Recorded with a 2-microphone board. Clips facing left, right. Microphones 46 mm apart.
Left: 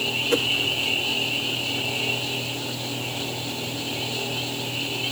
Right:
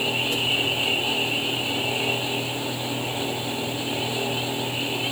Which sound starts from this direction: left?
A whoosh, at 0.3 s.